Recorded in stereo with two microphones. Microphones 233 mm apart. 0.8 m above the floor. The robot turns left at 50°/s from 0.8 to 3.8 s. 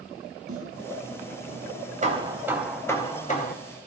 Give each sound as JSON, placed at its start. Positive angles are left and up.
{"t": 0.5, "sound": "a snare drum", "side_deg": -75, "distance_m": 3.0}
{"t": 2.0, "sound": "hammering", "azimuth_deg": -145, "distance_m": 4.0}